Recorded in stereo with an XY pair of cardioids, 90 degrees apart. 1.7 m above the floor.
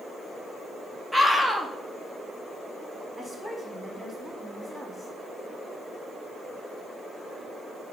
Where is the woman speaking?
10° right, 3.5 m.